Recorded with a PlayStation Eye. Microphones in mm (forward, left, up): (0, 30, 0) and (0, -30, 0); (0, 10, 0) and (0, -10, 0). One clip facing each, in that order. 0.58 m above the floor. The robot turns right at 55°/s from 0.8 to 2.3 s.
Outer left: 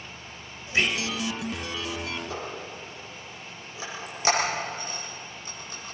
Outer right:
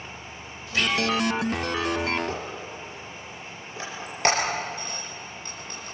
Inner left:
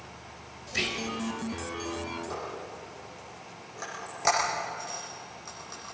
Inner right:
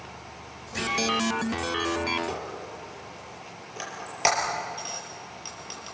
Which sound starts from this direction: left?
Whispering, at 0.7 s.